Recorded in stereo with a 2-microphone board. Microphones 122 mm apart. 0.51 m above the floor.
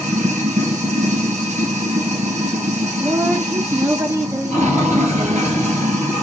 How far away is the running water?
About 2 m.